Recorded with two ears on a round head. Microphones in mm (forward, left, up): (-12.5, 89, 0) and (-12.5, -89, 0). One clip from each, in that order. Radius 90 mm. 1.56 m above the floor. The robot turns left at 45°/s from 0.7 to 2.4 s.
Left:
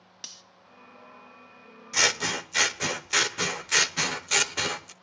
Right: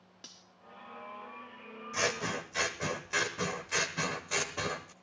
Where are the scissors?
80° left, 1.0 m; by 4.9 s 60° left (ahead or behind), 1.0 m.